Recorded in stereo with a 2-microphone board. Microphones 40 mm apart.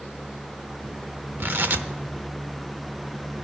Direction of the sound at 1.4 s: 55° right (ahead or behind).